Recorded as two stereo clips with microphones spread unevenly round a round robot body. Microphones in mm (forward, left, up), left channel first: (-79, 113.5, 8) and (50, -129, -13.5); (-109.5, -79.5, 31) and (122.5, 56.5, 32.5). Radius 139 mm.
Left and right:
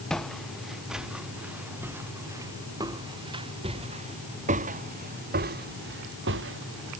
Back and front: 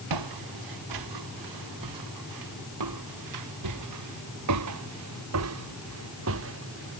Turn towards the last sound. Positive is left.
turn(degrees=-15)